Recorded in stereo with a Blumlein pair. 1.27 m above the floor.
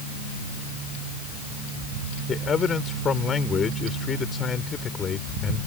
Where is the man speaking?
20° left.